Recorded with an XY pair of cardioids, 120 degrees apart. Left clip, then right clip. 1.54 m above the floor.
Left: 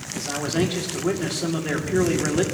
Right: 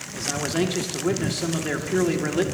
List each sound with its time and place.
0.1 s a man speaking: straight ahead, 2.0 m